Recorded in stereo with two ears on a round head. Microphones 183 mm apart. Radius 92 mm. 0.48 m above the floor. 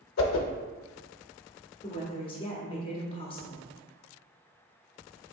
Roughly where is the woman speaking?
Left.